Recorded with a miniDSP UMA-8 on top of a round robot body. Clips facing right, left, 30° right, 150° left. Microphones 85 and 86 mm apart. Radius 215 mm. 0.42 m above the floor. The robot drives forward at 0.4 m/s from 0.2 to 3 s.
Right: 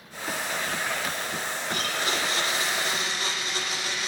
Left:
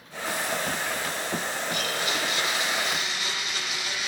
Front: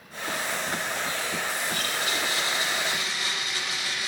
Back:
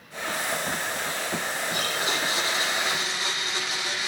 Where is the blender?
140° right, 8.5 m.